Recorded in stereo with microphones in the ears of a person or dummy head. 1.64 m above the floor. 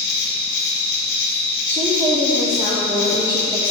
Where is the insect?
65° left (ahead or behind), 2.5 m.